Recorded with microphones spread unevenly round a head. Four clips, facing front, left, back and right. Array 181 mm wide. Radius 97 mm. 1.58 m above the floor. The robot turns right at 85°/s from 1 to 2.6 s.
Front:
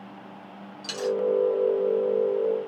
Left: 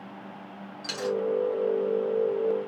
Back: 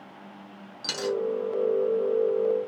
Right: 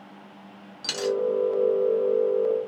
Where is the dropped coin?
160° right, 1.0 m; by 1.2 s 145° right, 1.0 m.